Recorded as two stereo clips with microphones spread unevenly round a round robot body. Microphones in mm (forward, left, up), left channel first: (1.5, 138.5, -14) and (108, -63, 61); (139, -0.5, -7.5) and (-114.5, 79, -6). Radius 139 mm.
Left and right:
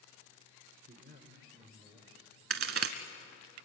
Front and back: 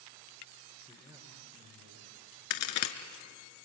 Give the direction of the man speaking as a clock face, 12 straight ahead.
4 o'clock.